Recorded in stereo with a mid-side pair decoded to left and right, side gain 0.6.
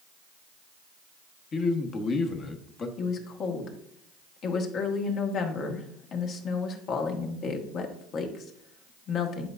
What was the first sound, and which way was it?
A man speaking, 40° left.